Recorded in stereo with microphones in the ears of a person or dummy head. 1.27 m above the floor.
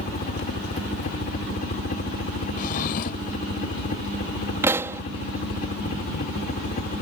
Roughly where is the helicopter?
Left.